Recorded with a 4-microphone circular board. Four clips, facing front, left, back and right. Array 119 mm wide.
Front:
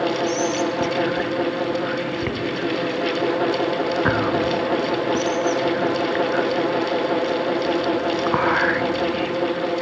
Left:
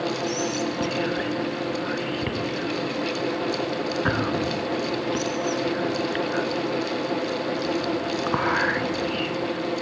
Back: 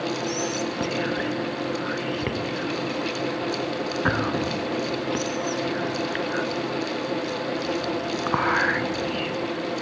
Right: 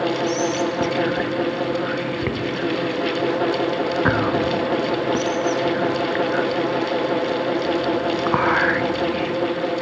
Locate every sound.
0.3 s whispering: 70° right, 1.4 m